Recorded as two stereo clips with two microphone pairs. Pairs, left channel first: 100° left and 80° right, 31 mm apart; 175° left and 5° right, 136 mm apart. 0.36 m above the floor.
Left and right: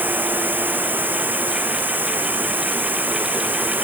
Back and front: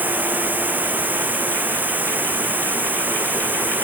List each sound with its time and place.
0.0 s running water: 80° right